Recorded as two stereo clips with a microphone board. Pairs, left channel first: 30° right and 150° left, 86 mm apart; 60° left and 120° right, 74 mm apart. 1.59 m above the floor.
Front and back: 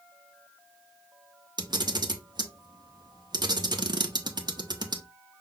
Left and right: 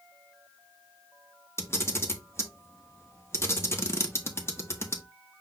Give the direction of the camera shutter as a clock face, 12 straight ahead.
8 o'clock.